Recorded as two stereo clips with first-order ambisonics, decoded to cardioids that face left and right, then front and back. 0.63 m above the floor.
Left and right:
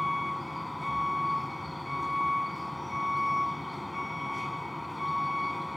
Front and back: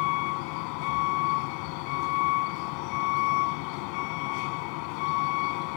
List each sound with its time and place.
0.0 s a vehicle: 5° left